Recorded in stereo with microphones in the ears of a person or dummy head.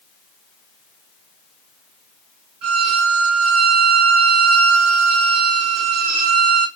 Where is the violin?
50° right (ahead or behind), 2.5 m.